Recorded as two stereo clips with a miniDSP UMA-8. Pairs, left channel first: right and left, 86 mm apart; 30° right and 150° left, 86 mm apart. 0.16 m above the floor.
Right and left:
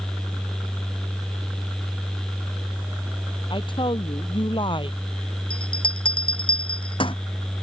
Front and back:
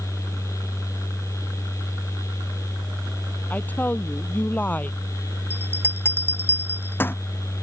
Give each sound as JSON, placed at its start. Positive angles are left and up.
{"t": 3.5, "sound": "a woman speaking", "azimuth_deg": -100}
{"t": 5.5, "sound": "a bell", "azimuth_deg": -95}